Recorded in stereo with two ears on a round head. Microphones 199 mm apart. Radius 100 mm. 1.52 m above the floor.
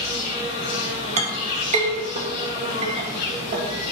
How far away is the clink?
About 1.7 m.